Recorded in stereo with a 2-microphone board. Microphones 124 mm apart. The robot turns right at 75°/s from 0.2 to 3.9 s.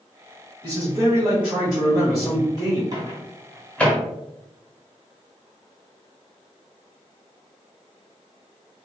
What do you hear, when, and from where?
0.6 s a man speaking: 75° right, 1.3 m; by 2.8 s 85° left, 1.3 m
2.9 s a microwave: 30° right (ahead or behind), 0.8 m; by 4.0 s 10° left (ahead or behind), 0.8 m